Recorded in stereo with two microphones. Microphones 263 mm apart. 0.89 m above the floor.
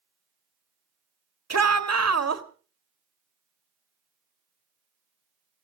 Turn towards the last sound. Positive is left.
turn(degrees=-75)  # may be behind; listen again after turning